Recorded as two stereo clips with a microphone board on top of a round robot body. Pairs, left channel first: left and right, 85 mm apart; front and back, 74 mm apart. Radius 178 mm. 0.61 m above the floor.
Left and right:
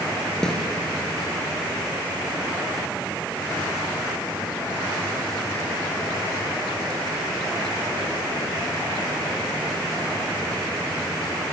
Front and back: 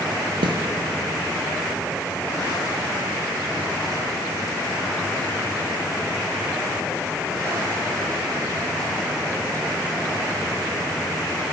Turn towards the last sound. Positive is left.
turn(degrees=175)